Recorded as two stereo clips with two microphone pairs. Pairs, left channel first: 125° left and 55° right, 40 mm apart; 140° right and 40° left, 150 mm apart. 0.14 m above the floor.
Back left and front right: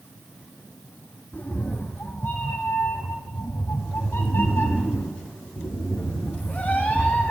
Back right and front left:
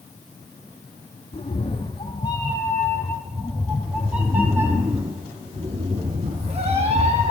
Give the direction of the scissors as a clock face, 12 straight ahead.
No scissors in this recording.